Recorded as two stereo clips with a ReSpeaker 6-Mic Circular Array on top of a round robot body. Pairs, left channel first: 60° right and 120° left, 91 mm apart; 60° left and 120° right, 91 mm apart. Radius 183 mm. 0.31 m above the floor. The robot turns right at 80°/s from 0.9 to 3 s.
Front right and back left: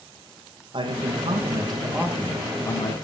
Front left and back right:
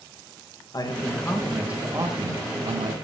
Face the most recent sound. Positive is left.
turn(degrees=-90)